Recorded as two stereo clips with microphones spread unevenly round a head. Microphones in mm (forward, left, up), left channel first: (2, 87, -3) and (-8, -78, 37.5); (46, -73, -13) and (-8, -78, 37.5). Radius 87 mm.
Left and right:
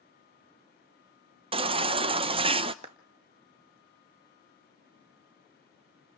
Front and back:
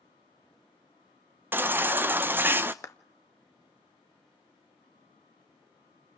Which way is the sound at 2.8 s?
40° right.